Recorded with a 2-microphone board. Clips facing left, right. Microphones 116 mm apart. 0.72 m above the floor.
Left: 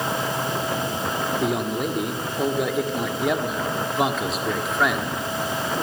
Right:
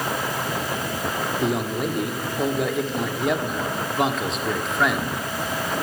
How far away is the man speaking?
About 1.7 m.